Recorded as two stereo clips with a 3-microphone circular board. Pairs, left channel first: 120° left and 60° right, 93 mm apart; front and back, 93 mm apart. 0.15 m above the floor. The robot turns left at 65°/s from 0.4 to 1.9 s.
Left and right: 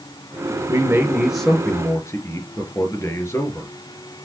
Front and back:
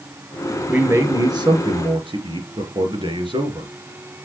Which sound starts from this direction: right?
A man speaking, at 0.7 s.